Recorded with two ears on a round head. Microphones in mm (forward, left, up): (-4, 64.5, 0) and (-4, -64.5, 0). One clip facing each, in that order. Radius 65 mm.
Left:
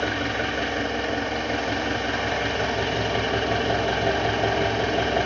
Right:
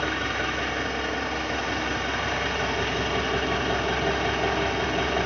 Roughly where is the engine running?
Left.